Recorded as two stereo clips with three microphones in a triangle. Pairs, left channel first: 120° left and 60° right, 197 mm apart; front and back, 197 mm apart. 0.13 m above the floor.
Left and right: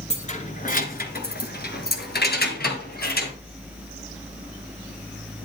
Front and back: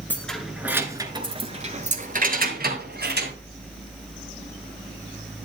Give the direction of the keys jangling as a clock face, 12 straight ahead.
9 o'clock.